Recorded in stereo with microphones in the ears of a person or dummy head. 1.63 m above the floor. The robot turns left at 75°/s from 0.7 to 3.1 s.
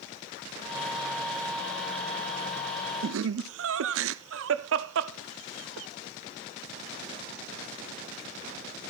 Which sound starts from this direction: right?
Laughter, at 3.0 s.